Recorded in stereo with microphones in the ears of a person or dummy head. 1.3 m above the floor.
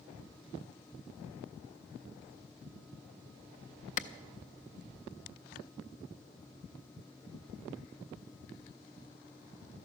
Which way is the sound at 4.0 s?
45° left (ahead or behind).